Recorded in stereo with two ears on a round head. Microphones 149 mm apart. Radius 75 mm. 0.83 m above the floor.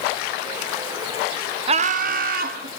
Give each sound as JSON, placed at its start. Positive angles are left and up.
{"t": 1.7, "sound": "laughter", "side_deg": -35, "distance_m": 0.6}